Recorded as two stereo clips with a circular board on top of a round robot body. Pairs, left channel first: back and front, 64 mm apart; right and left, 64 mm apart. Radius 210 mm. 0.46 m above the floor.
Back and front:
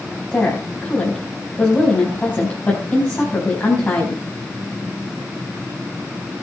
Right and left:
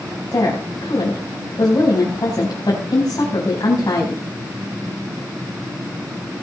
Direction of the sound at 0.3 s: 120° right.